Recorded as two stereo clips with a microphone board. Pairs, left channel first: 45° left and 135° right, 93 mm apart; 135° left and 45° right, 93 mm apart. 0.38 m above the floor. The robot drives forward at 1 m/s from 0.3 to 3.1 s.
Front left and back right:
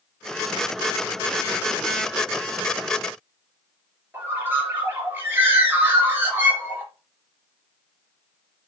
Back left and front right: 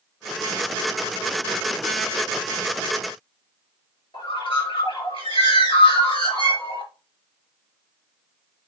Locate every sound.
4.1 s a bird: 155° left, 4 m